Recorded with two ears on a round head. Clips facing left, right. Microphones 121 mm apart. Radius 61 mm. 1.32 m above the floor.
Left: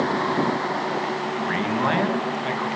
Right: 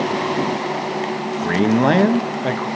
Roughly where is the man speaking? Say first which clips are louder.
Right 9 dB; right.